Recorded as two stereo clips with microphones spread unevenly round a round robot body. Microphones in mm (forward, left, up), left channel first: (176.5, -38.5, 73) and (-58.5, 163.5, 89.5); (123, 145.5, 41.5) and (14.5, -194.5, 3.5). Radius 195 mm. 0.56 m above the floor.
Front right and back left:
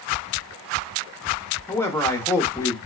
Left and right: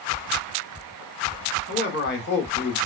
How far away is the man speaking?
About 0.8 m.